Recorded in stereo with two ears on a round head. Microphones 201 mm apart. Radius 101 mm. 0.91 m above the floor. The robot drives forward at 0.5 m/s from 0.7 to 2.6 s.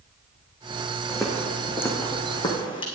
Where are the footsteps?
Centre (ahead or behind), 2.5 m; by 2.9 s 25° left (ahead or behind), 2.5 m.